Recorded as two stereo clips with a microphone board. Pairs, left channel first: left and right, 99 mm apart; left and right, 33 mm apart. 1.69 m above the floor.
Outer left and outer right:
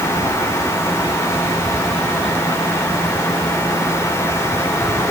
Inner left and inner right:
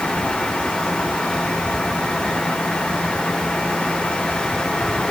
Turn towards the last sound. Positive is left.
No sound to turn to.